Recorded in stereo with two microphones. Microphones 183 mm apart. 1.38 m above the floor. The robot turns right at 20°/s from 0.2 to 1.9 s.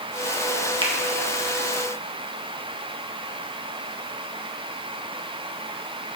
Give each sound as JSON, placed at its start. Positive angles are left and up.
{"t": 0.8, "sound": "a finger snap", "side_deg": -25, "distance_m": 1.0}